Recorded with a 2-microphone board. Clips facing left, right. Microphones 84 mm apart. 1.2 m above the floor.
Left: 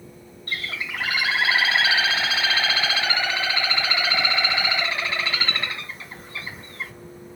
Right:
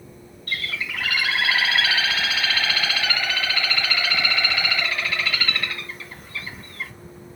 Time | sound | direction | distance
0.5 | a bird | 25° left (ahead or behind) | 1.2 m